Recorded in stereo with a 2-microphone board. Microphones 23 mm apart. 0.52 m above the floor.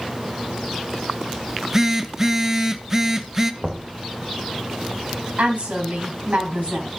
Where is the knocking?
35° right (ahead or behind), 2.0 m.